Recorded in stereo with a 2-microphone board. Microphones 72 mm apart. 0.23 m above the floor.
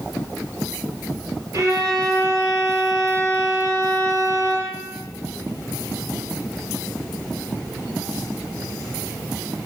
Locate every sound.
1.5 s a violin: 40° right (ahead or behind), 2 m